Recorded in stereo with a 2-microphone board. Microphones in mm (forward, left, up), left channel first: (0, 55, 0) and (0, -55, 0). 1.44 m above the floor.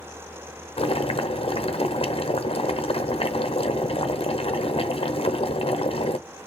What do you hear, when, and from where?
0.8 s boiling: 60° left (ahead or behind), 0.6 m